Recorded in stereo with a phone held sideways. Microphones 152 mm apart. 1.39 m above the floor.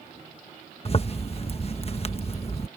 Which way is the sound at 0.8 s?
45° left (ahead or behind).